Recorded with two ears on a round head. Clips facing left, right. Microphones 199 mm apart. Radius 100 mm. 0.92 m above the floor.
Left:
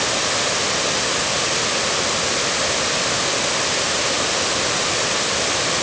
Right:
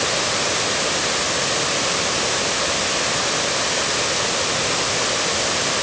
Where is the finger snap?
I don't hear a finger snap.